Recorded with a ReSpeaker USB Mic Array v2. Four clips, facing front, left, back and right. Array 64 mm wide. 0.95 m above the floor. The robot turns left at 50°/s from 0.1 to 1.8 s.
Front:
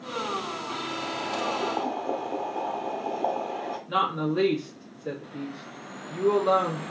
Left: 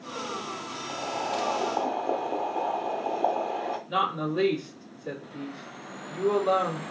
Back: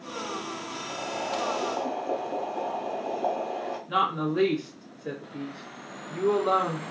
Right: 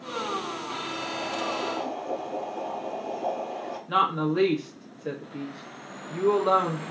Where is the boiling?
120° left, 1.1 m; by 3.8 s 75° left, 1.1 m.